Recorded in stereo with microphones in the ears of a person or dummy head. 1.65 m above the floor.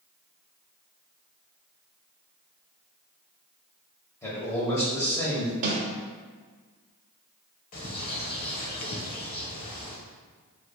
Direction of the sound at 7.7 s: 45° left (ahead or behind).